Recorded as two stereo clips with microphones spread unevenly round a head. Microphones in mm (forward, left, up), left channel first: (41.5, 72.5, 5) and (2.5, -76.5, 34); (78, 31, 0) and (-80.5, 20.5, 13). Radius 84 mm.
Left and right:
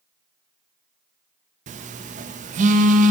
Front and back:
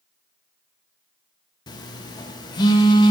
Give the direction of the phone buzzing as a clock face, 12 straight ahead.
2 o'clock.